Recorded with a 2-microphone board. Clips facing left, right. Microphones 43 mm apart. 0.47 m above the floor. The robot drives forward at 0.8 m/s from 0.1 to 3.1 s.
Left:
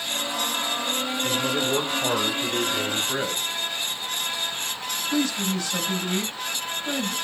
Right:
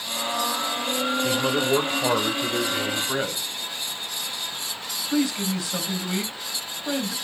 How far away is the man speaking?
About 1.7 m.